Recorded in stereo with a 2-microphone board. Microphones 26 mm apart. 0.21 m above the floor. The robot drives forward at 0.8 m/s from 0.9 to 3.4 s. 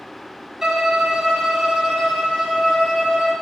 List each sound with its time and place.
0.6 s a violin: 20° right (ahead or behind), 1.3 m; by 3.3 s 10° right (ahead or behind), 3 m